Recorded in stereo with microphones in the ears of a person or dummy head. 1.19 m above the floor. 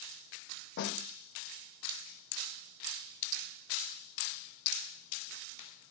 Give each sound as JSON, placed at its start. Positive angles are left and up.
{"t": 0.8, "sound": "a snare drum", "side_deg": 65, "distance_m": 1.6}